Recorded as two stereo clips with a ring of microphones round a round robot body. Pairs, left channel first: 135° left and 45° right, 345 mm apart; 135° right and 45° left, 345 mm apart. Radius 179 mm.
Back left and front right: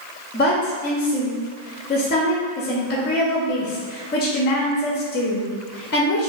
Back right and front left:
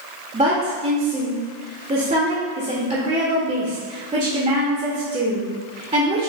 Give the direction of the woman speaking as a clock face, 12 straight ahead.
9 o'clock.